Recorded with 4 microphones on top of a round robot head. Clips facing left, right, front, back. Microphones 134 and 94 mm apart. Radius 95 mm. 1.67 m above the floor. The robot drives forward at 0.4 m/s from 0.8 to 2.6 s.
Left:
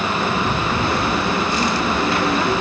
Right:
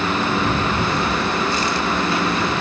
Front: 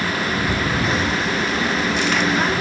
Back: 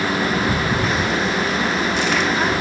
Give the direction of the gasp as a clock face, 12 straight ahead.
No gasp in this recording.